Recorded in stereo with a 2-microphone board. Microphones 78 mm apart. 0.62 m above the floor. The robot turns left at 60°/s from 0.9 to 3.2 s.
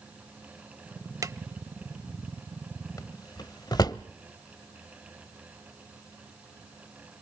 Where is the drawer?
45° right (ahead or behind), 0.7 m; by 4.0 s 60° left (ahead or behind), 0.7 m.